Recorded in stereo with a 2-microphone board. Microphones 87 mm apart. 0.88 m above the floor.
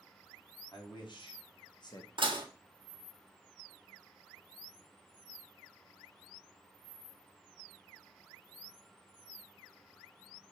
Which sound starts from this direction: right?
Dishes clattering, at 2.2 s.